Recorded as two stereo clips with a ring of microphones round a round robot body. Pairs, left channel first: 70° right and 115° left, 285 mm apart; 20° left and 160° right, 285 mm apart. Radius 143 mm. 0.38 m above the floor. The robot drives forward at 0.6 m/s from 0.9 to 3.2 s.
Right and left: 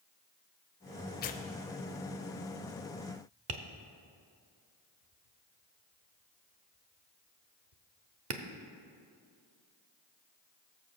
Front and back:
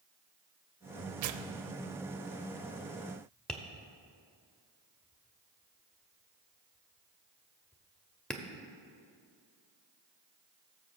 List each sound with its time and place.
1.2 s tearing paper: 125° right, 0.5 m; by 3.2 s 165° right, 1.5 m
3.5 s tapping: 110° left, 0.8 m